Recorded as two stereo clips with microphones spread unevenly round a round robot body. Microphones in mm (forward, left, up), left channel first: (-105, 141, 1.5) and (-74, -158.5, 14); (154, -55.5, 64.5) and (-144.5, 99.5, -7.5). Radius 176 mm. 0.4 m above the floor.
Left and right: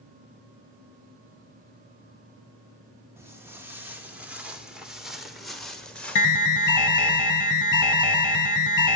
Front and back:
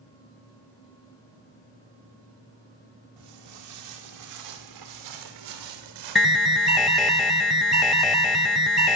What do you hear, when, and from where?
3.2 s footsteps: 165° right, 6 m; by 7.2 s 175° left, 4 m
6.2 s an alarm: 70° left, 1.2 m